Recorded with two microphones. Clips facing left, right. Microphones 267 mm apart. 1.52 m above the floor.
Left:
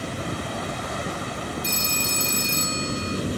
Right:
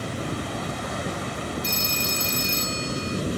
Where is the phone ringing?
60° left (ahead or behind).